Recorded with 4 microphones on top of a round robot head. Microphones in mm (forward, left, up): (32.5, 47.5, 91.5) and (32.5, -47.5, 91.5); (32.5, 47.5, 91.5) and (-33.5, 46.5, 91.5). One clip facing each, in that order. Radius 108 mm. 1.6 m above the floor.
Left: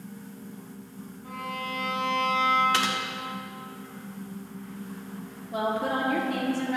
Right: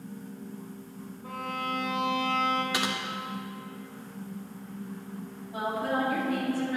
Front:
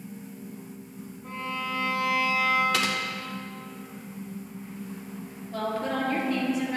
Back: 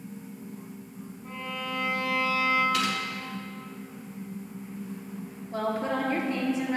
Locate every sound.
1.2 s a violin: 80° right, 1.2 m
2.7 s typing on a keyboard: 15° right, 1.1 m
5.5 s a woman speaking: 120° left, 1.3 m